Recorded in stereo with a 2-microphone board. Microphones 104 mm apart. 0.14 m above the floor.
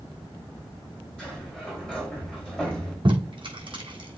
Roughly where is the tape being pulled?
Right.